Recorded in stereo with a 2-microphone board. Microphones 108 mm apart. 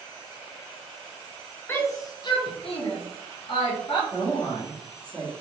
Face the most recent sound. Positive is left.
turn(degrees=15)  # may be behind; listen again after turning